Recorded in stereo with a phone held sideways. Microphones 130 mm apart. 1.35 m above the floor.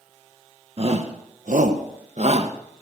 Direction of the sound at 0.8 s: 50° right (ahead or behind).